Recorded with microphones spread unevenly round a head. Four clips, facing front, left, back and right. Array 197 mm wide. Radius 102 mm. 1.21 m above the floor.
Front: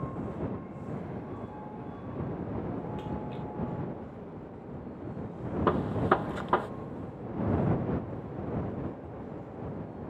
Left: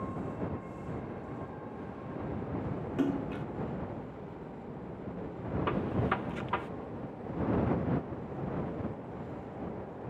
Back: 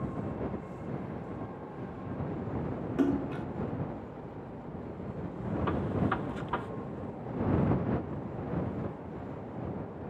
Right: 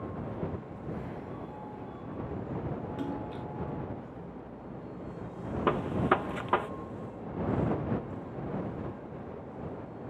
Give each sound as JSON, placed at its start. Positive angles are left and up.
{"t": 3.0, "sound": "a splash", "azimuth_deg": 155}
{"t": 5.7, "sound": "a gunshot", "azimuth_deg": -40}